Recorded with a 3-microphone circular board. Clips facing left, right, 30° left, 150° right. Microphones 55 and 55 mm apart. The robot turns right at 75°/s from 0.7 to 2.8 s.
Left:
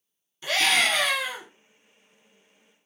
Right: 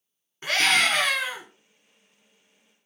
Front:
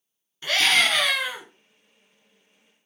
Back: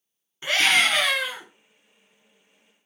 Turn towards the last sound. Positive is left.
turn(degrees=70)